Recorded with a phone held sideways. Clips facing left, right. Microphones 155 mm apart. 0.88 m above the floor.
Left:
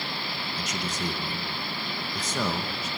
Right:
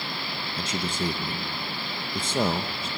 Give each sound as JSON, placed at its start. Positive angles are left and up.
{"t": 0.6, "sound": "a man speaking", "side_deg": -30, "distance_m": 0.9}